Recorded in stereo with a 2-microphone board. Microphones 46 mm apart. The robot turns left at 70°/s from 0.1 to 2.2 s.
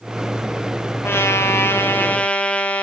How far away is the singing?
No singing in this recording.